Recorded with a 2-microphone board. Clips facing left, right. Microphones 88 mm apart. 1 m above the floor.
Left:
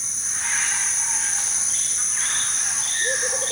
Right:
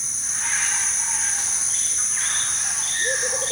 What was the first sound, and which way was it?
Only background noise.